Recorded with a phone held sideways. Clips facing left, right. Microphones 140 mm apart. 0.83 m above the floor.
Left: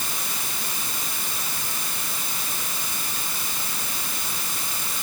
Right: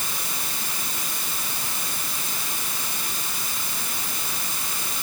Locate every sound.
Only background noise.